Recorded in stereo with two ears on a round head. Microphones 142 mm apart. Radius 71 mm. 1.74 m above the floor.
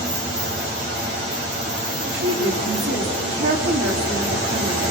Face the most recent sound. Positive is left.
turn(degrees=-55)  # may be behind; listen again after turning